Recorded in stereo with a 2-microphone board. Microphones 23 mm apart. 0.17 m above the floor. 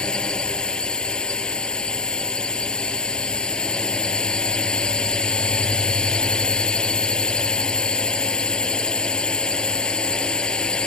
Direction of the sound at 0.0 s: 35° left (ahead or behind).